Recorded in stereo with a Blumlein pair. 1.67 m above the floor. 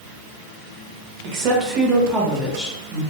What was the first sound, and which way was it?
A woman speaking, 45° right.